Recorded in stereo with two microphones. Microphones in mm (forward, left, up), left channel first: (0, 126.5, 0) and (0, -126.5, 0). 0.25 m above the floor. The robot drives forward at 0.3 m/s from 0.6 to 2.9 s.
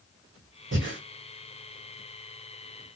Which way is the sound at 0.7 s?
45° right (ahead or behind).